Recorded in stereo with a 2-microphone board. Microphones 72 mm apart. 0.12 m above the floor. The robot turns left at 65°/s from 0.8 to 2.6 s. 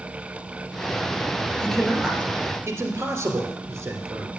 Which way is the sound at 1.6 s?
10° left (ahead or behind).